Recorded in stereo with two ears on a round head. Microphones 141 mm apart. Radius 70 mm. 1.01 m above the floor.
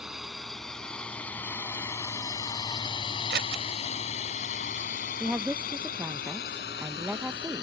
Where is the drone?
Centre (ahead or behind); by 7.6 s 80° left.